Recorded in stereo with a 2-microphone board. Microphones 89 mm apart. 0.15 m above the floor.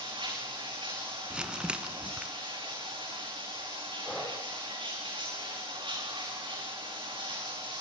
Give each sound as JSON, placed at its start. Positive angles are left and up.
{"t": 0.0, "sound": "running water", "side_deg": -65, "distance_m": 8.5}
{"t": 1.3, "sound": "crumpling", "side_deg": -10, "distance_m": 1.6}
{"t": 4.0, "sound": "breathing", "side_deg": 5, "distance_m": 6.5}